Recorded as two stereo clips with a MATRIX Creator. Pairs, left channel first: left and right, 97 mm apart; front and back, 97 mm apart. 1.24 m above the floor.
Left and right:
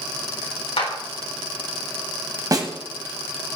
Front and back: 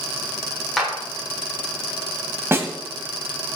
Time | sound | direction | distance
0.8 | a clap | 90° left | 3.5 m
2.5 | a snare drum | 125° right | 1.4 m